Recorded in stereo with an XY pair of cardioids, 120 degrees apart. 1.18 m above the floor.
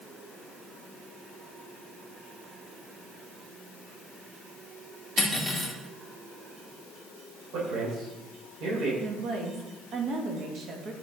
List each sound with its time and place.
5.2 s cutlery clinking: 5° left, 1.8 m
7.5 s a man speaking: 65° right, 4 m
9.0 s a woman speaking: 50° right, 1.7 m